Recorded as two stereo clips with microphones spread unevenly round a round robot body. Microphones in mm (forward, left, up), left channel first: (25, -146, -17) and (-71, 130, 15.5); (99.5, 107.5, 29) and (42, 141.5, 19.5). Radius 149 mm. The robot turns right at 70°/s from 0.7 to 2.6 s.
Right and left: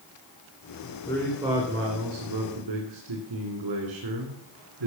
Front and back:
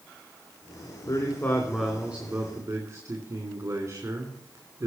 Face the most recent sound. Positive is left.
turn(degrees=105)